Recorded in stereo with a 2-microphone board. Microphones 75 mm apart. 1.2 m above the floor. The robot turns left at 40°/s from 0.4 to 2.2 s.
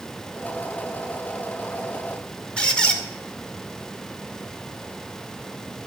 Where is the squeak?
15° left (ahead or behind), 1.7 m.